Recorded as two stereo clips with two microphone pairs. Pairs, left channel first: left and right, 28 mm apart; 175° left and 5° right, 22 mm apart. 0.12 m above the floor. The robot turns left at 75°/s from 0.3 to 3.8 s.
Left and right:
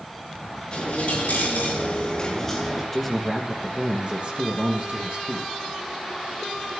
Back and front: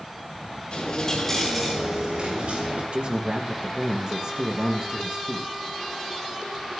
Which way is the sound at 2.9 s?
20° left.